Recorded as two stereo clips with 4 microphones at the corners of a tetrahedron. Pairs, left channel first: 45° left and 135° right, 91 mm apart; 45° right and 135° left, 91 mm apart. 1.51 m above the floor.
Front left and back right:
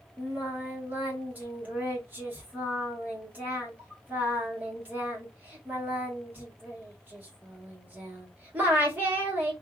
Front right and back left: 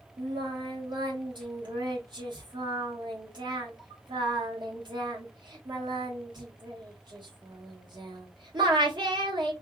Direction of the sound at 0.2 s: 160° left.